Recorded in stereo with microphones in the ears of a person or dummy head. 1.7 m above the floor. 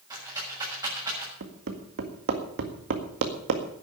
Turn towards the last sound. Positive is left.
turn(degrees=-60)  # may be behind; listen again after turning